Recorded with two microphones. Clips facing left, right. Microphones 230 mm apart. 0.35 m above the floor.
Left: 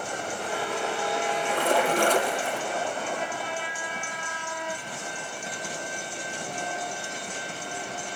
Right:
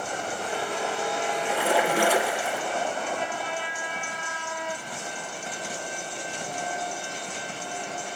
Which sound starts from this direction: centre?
A splash, at 1.5 s.